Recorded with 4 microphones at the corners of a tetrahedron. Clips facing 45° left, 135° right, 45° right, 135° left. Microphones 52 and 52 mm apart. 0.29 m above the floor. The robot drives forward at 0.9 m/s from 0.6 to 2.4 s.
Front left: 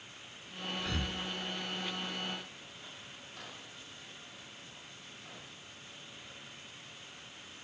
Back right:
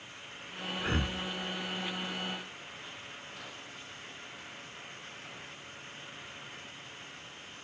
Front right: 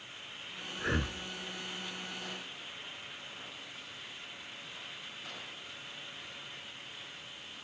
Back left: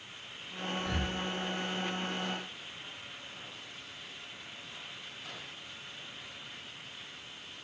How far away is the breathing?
About 1.4 m.